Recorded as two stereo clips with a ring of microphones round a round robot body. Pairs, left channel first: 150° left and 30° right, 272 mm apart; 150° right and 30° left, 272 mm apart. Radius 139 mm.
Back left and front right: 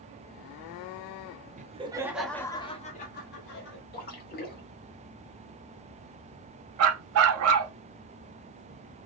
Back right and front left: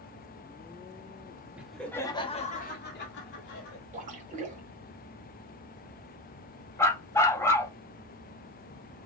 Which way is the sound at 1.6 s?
50° right.